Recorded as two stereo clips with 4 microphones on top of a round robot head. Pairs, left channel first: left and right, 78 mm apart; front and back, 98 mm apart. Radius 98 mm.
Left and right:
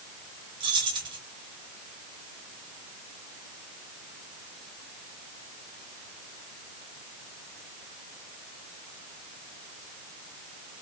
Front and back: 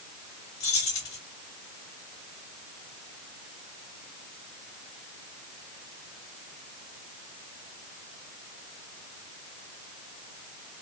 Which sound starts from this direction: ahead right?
Keys jangling, at 0.6 s.